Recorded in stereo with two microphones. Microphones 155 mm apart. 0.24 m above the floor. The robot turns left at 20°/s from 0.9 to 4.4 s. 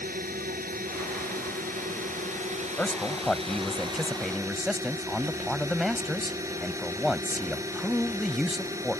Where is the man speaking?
10° left (ahead or behind); by 9.0 s centre (ahead or behind).